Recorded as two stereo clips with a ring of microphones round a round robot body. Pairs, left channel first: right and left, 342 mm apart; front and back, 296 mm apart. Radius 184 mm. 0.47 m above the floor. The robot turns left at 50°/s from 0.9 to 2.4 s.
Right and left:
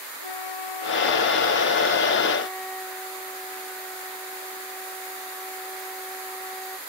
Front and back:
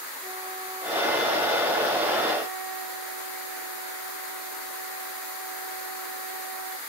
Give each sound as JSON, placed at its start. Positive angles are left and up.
{"t": 0.2, "sound": "a flute", "azimuth_deg": -100}